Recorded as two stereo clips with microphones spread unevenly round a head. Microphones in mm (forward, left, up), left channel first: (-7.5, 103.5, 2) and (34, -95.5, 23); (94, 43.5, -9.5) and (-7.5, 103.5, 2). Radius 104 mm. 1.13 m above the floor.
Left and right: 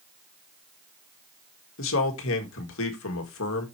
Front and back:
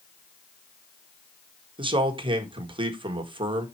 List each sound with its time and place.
1.8 s a man speaking: 105° left, 1.7 m